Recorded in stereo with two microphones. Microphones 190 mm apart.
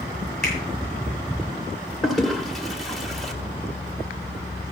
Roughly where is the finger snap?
Right.